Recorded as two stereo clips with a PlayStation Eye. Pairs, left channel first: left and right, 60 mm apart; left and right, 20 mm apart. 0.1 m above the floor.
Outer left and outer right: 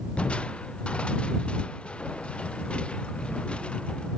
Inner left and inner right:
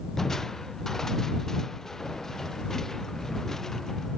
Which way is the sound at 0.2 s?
20° left (ahead or behind).